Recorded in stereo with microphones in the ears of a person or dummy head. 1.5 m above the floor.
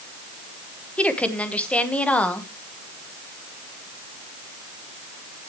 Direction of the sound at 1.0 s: 10° left (ahead or behind).